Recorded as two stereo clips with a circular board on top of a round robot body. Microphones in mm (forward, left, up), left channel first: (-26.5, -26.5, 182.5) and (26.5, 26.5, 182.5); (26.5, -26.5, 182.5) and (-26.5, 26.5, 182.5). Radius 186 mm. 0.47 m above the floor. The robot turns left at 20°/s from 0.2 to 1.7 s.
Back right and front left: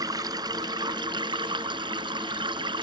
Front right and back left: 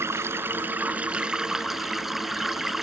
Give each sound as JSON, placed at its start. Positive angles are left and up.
{"t": 0.0, "sound": "running water", "azimuth_deg": 80}